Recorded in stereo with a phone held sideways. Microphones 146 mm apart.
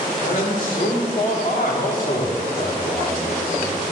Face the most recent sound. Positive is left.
turn(degrees=45)  # may be behind; listen again after turning